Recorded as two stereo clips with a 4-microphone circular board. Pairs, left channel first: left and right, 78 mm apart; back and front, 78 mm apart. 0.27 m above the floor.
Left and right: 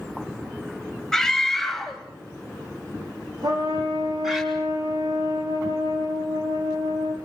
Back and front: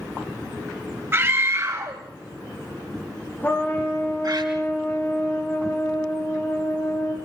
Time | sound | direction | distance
1.1 | a scream | 15° left | 1.5 m
3.4 | a trumpet | 115° right | 7 m